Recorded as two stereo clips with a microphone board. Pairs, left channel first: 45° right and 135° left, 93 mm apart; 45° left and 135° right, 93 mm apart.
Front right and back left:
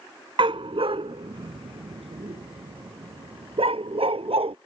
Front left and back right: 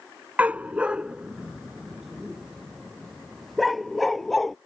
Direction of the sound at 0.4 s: 155° left.